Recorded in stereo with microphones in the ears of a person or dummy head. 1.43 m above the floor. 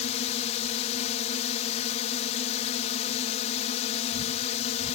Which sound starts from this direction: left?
A drone, at 0.0 s.